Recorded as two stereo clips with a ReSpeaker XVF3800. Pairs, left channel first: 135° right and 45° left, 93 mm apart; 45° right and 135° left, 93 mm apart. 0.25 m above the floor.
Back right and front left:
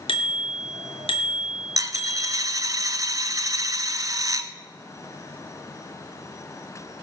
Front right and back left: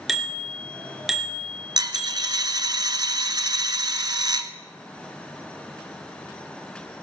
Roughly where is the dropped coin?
Left.